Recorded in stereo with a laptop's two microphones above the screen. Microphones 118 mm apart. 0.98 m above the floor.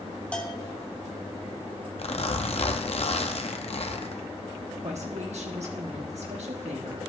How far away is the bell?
About 1.0 m.